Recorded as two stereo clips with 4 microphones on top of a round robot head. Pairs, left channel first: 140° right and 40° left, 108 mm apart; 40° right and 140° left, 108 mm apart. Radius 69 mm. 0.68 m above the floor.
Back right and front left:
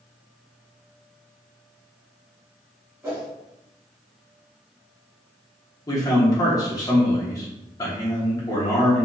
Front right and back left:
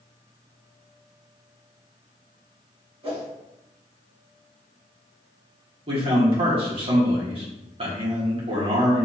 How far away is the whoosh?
About 1.7 m.